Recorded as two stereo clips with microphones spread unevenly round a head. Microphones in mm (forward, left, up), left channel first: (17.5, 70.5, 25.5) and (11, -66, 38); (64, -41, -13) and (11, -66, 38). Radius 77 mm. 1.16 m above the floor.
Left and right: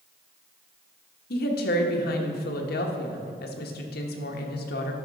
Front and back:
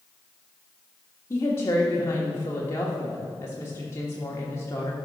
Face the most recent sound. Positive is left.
turn(degrees=85)